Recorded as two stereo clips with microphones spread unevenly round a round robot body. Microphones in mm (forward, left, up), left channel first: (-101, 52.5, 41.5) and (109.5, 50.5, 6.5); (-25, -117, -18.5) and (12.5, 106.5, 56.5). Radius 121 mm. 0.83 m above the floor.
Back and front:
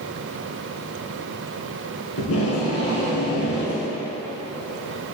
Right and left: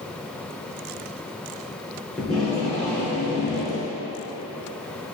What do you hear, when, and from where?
2.2 s tape being pulled: 165° left, 2 m